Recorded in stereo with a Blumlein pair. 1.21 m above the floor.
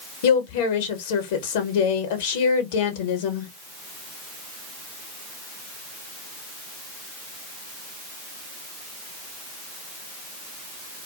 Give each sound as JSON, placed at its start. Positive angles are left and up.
{"t": 0.2, "sound": "a woman speaking", "azimuth_deg": 55, "distance_m": 1.0}